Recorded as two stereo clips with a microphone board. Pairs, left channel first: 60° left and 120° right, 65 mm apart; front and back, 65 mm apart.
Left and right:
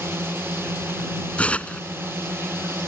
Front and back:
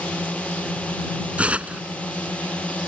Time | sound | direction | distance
0.0 | a drone | 70° right | ?
1.4 | tearing paper | 120° left | ?